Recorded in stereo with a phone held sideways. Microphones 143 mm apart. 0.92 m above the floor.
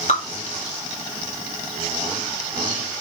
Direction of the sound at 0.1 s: 50° left (ahead or behind).